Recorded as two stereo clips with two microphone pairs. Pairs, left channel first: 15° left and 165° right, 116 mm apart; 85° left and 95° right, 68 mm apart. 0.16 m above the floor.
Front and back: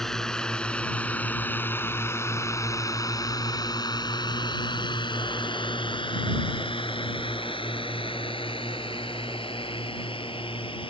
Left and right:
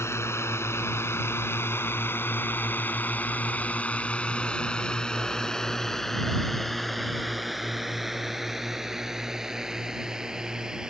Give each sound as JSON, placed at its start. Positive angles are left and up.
{"t": 0.0, "sound": "a drone", "azimuth_deg": 100}